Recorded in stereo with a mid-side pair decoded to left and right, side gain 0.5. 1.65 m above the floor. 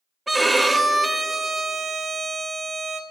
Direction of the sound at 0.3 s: 10° right.